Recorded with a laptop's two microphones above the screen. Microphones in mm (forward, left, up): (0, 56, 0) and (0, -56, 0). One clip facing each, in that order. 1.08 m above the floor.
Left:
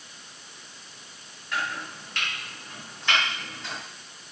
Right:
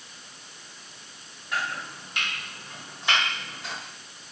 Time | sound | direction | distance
1.5 | chopping | 15° right (ahead or behind) | 1.2 m